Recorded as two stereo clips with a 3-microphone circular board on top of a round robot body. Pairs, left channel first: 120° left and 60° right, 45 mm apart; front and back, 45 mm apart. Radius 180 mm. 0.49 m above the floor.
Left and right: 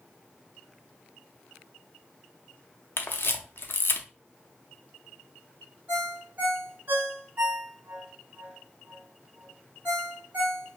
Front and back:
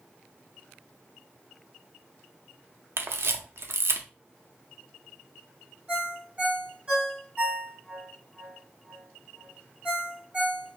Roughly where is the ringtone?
Behind right.